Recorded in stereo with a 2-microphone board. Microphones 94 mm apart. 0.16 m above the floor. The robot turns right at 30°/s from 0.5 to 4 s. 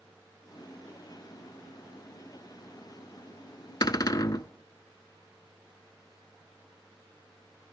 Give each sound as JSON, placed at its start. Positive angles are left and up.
{"t": 3.8, "sound": "a cupboard door", "side_deg": 50, "distance_m": 0.5}